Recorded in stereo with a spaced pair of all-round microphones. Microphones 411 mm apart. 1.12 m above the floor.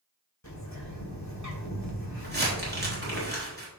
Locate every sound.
0.4 s a bird: 40° left (ahead or behind), 1.9 m
2.2 s crumpling: 25° right (ahead or behind), 3.5 m